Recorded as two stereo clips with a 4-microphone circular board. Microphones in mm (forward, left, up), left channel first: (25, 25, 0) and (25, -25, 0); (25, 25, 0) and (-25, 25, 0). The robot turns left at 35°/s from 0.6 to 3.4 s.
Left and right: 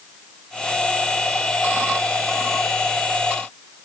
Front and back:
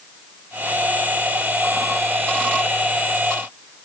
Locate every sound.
Only background noise.